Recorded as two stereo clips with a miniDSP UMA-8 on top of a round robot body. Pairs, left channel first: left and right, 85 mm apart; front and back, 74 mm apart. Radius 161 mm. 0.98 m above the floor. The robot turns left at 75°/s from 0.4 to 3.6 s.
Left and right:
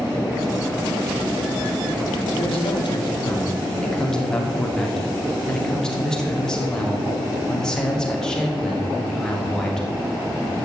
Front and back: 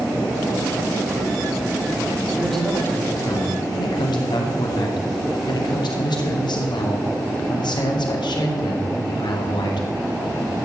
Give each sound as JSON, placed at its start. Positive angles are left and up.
{"t": 2.4, "sound": "a man speaking", "azimuth_deg": 100, "distance_m": 2.5}